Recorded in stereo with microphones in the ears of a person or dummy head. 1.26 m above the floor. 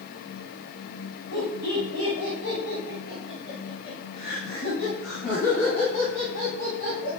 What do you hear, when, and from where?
1.3 s laughter: 50° left (ahead or behind), 9.5 m; by 7.1 s 40° left (ahead or behind), 12.5 m